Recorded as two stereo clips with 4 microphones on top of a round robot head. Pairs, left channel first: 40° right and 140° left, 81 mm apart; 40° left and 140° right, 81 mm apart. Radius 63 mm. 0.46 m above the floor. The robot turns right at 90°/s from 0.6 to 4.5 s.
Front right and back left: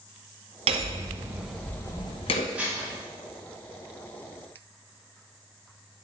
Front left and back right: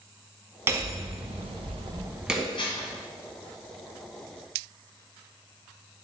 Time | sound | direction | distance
0.7 | hammering | 155° left | 0.8 m
2.5 | dishes clattering | 65° left | 2 m